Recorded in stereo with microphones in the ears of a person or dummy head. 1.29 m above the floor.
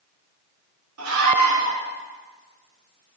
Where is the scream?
90° right, 2.5 m.